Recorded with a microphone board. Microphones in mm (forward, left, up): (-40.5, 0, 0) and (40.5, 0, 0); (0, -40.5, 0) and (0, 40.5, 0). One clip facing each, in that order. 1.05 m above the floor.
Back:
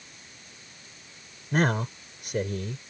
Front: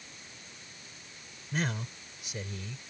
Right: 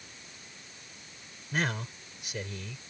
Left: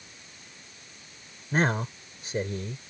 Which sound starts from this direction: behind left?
A man speaking, at 1.5 s.